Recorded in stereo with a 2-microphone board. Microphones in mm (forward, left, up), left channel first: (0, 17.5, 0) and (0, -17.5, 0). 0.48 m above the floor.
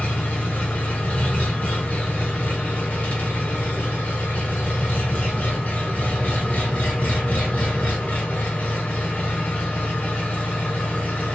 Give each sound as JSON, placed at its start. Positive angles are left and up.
{"t": 0.0, "sound": "an engine running", "side_deg": 45, "distance_m": 1.6}